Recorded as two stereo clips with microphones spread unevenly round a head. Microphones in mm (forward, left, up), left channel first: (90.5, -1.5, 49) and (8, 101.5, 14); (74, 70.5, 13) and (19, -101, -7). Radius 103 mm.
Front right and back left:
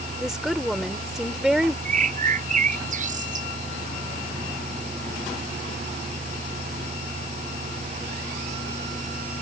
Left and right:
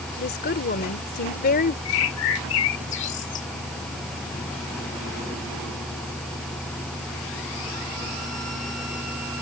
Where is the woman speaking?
40° left.